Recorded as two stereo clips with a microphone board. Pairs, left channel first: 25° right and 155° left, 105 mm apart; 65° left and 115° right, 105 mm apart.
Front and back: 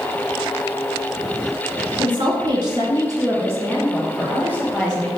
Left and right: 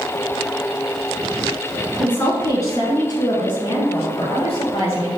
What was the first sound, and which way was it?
A woman speaking, 135° left.